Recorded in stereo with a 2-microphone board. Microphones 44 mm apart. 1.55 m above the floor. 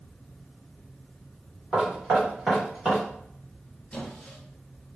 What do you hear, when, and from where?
1.7 s knocking: 5° right (ahead or behind), 1.5 m
3.9 s a squeak: 25° left (ahead or behind), 0.8 m